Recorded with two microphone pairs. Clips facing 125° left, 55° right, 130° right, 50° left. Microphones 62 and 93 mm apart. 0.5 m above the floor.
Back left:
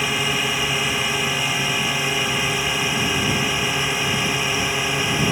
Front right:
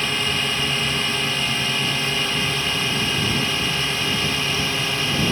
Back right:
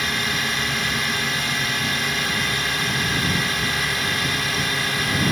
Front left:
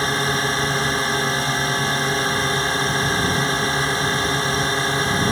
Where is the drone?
55° left; by 5.3 s 65° left.